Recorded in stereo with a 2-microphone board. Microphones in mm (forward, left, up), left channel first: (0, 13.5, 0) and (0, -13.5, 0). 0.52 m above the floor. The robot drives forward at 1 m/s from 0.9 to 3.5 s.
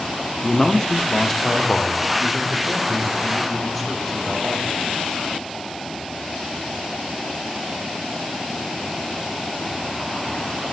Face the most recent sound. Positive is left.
turn(degrees=5)  # may be behind; listen again after turning